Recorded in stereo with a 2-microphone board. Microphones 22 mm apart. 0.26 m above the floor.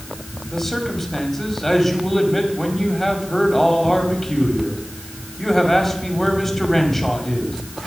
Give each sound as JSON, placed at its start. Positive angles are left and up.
{"t": 0.5, "sound": "a man speaking", "side_deg": 10, "distance_m": 1.8}